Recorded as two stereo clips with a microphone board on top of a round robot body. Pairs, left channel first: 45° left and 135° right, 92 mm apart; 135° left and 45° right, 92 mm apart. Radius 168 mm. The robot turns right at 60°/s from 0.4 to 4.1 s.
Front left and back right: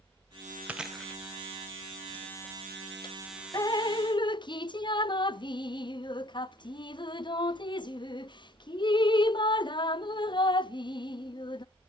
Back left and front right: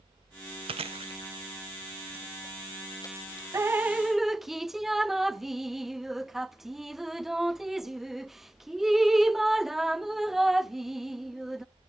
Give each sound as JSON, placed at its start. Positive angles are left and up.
{"t": 0.7, "sound": "chewing", "azimuth_deg": -60, "distance_m": 0.9}
{"t": 3.5, "sound": "dripping", "azimuth_deg": 5, "distance_m": 0.5}